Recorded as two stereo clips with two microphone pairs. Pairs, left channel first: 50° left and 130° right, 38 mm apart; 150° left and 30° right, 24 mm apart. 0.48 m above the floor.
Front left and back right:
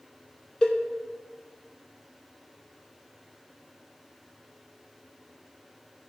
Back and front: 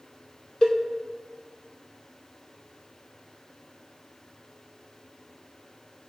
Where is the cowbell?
120° left, 0.7 m.